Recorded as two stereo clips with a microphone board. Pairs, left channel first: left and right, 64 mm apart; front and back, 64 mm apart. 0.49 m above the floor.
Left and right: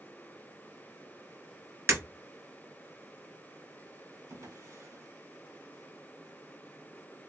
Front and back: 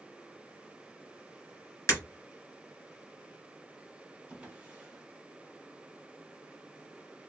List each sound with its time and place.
1.9 s breaking glass: 35° right, 1.6 m
4.3 s a drawer: 110° right, 0.9 m